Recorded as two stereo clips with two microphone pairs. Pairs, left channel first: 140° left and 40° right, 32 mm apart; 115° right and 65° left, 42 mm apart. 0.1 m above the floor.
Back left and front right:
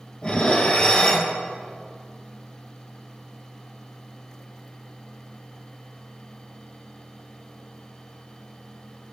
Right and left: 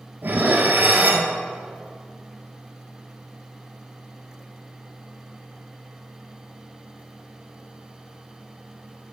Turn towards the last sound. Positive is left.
turn(degrees=85)